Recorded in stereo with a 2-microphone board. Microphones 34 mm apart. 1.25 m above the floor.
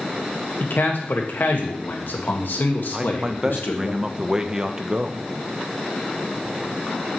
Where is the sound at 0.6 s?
80° left, 1.6 m.